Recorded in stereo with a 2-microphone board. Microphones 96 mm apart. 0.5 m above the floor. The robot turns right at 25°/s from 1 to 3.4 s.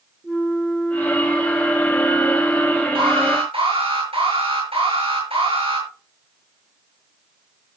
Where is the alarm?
75° right (ahead or behind), 7.5 m; by 5.9 s 85° right, 7.5 m.